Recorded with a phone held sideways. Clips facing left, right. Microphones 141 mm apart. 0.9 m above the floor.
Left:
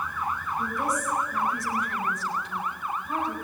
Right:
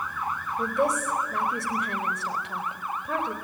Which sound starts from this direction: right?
A woman speaking, at 0.6 s.